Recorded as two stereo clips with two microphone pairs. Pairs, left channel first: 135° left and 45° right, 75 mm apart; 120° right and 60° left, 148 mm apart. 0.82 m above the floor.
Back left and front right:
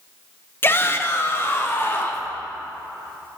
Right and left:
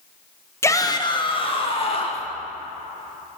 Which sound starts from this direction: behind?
A shout, at 0.6 s.